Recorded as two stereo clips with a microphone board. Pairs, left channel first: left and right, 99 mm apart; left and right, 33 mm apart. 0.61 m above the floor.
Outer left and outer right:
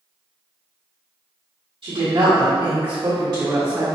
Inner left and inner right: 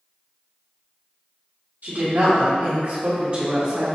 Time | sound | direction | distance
1.8 | a woman speaking | 65° right (ahead or behind) | 1.6 m